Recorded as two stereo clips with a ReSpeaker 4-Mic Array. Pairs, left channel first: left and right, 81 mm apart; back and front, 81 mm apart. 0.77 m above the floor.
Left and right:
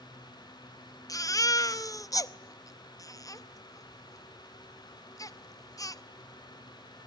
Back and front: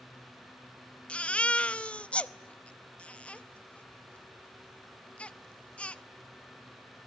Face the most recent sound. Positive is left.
turn(degrees=110)